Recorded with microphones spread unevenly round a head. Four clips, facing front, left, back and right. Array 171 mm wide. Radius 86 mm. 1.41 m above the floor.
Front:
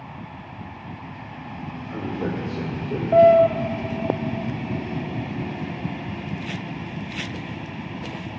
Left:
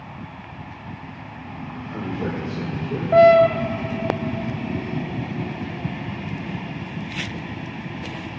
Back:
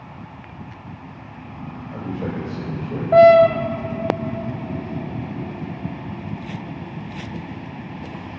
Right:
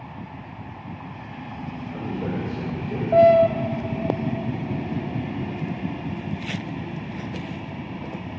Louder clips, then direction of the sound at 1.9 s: Left 2 dB, even; 30° left.